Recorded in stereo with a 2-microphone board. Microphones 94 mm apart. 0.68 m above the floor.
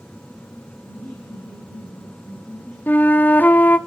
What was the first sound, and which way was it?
Laughter, 5° left (ahead or behind).